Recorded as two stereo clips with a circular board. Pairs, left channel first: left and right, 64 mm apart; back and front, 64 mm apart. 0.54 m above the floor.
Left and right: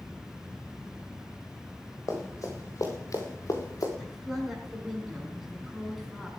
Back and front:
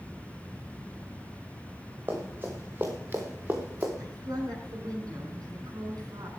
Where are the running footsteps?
55° left, 6.5 m.